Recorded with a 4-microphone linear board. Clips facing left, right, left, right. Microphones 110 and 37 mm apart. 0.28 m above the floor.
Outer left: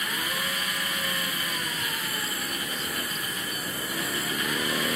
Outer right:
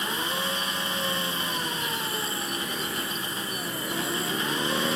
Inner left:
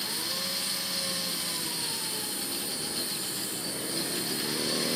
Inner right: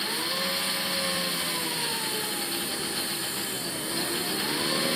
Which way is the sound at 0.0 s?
25° right (ahead or behind).